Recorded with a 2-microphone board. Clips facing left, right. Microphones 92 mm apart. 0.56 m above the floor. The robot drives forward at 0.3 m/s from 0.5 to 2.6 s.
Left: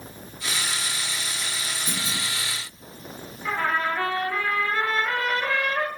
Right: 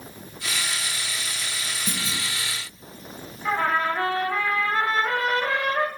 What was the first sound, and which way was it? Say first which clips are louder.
A clunk: right 1 dB; 75° right (ahead or behind).